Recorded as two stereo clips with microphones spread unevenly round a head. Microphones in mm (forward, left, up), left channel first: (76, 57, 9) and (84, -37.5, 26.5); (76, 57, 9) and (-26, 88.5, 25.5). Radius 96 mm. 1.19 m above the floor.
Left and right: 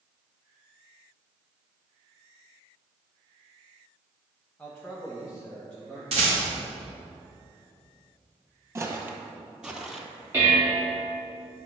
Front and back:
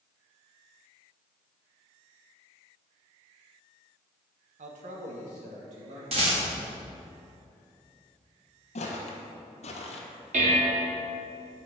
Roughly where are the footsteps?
Ahead right.